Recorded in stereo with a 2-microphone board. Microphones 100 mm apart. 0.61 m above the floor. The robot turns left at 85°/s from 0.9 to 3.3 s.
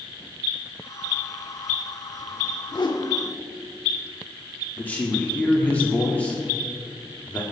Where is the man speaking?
20° left (ahead or behind), 1.6 m.